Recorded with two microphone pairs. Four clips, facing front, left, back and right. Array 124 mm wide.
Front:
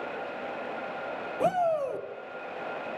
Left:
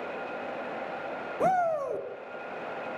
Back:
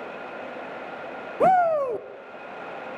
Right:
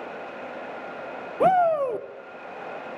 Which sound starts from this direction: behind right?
A shout, at 1.4 s.